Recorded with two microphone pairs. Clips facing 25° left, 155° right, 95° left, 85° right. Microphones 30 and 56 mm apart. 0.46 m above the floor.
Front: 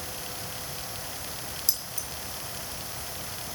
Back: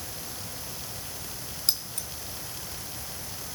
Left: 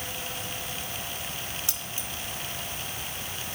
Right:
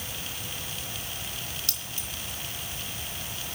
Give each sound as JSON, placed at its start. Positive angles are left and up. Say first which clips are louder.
{"t": 1.7, "sound": "keys jangling", "louder": "back 6 dB, left 2 dB", "azimuth_deg": 165, "distance_m": 3.0}